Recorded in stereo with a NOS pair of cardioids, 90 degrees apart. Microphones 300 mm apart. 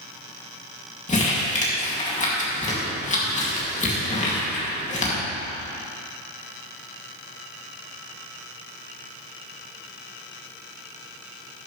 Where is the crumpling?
25° left, 2.5 m.